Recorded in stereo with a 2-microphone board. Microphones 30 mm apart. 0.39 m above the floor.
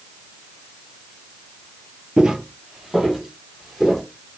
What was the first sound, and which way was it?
Footsteps, 25° right (ahead or behind).